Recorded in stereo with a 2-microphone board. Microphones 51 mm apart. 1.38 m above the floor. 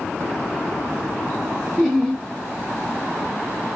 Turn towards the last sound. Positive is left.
turn(degrees=-5)  # may be behind; listen again after turning